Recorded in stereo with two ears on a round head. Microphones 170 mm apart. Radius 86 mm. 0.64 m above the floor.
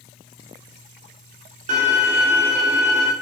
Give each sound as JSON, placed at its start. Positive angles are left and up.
{"t": 1.7, "sound": "a violin", "side_deg": -40, "distance_m": 1.4}